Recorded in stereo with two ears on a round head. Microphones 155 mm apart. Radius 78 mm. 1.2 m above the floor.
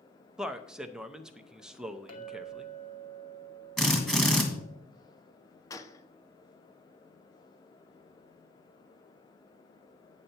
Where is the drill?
Centre (ahead or behind), 1.6 m.